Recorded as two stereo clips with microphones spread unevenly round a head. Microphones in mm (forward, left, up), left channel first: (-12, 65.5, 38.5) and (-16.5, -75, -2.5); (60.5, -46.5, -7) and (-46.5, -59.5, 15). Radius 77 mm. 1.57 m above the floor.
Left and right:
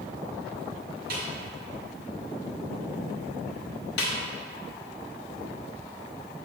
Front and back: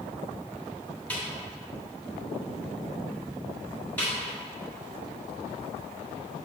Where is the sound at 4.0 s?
90° left, 1.2 m.